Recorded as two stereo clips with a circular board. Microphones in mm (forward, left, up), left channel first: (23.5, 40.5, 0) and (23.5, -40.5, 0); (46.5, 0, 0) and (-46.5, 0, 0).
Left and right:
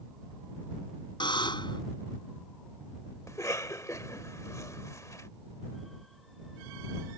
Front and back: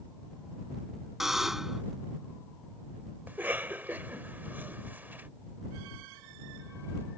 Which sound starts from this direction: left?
A buzzer, at 1.2 s.